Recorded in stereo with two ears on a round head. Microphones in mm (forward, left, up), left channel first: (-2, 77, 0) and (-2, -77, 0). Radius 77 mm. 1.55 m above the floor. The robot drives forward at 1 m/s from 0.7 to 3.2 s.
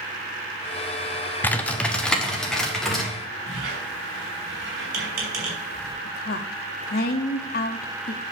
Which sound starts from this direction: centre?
Typing on a keyboard, at 1.4 s.